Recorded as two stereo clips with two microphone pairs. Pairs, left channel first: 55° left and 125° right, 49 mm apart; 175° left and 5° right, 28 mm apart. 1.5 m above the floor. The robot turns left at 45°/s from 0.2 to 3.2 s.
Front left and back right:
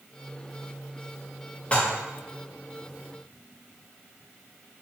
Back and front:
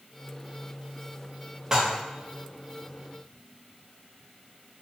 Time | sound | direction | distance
1.7 | dishes clattering | 25° left | 0.7 m